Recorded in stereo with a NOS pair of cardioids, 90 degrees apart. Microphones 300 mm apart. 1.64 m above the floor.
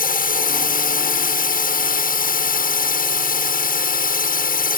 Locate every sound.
0.0 s a drone: 30° left